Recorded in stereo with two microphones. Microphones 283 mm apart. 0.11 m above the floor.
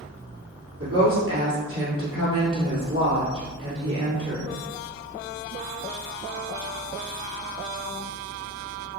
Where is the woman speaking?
50° right (ahead or behind), 1.9 m.